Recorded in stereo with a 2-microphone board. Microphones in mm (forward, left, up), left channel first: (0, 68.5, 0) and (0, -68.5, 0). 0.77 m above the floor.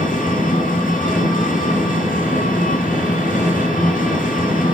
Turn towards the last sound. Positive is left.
turn(degrees=80)